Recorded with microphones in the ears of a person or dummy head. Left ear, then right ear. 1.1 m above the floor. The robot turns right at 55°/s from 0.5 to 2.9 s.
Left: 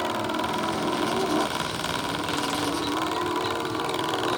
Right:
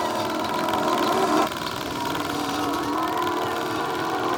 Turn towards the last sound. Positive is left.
turn(degrees=-25)  # may be behind; listen again after turning